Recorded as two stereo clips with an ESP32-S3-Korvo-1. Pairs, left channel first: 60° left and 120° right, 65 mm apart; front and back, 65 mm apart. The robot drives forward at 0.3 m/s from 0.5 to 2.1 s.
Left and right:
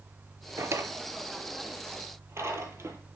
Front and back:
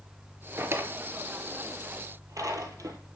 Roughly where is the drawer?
Behind right.